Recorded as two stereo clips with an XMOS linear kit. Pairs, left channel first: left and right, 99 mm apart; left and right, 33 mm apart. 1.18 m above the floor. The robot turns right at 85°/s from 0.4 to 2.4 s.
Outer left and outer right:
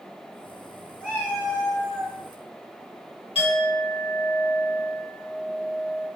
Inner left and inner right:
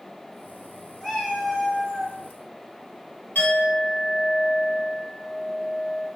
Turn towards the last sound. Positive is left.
turn(degrees=70)  # may be behind; listen again after turning